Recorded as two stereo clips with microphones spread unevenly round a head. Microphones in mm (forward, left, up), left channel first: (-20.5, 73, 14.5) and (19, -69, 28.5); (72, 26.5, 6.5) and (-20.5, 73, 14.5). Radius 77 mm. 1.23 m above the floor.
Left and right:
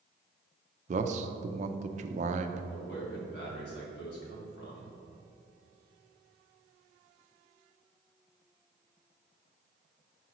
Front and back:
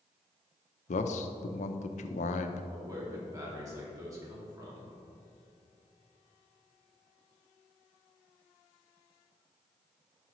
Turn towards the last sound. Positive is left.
turn(degrees=95)